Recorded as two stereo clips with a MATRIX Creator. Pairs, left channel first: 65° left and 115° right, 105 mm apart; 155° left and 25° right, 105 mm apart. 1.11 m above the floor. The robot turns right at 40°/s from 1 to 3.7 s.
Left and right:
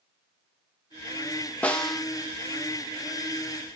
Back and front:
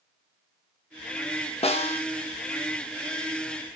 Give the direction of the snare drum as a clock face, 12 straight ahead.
7 o'clock.